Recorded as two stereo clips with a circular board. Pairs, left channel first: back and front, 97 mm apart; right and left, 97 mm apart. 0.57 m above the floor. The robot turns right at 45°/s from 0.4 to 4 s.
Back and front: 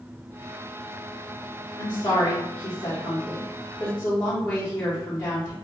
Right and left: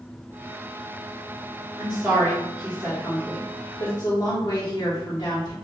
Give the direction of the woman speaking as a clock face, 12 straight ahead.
7 o'clock.